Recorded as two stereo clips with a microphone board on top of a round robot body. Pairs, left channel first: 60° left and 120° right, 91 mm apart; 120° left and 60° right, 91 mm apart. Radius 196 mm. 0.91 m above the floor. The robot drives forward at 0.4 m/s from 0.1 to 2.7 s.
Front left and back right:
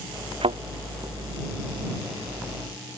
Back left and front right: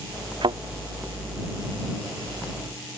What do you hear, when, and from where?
0.4 s a thud: 100° right